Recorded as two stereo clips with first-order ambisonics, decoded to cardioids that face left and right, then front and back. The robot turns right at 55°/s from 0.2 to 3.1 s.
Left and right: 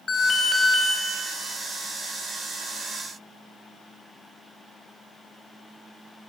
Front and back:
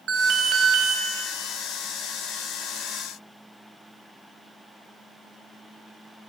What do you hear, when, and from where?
0.1 s an alarm: 145° left, 1.1 m; by 1.0 s 175° right, 1.1 m